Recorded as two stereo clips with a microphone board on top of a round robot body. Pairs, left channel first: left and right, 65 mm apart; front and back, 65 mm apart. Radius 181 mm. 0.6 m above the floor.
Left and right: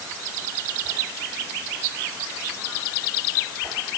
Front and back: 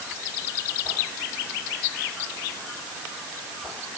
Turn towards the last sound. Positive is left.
No sound to turn to.